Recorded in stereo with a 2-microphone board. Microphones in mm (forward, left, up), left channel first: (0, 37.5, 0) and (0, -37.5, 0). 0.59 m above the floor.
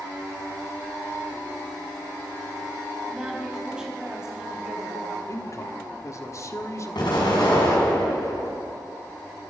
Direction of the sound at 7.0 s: 80° left.